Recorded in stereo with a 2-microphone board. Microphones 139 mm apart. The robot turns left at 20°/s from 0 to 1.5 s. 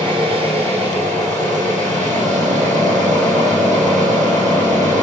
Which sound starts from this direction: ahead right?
An engine running, at 0.0 s.